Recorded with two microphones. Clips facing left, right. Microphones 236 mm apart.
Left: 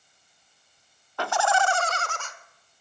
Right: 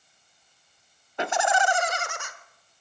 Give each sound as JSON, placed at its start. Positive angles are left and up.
{"t": 1.2, "sound": "laughter", "side_deg": -20, "distance_m": 0.7}